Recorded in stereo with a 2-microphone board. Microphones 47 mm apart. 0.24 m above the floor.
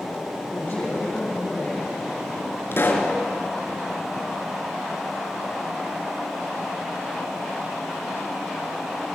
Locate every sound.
0.5 s a man speaking: 40° left (ahead or behind), 7.5 m
2.7 s a pop: 55° left (ahead or behind), 3 m